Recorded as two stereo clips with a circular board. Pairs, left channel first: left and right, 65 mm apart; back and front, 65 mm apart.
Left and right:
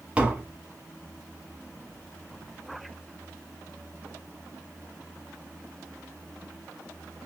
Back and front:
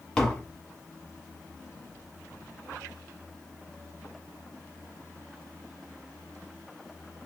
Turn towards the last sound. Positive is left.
turn(degrees=-120)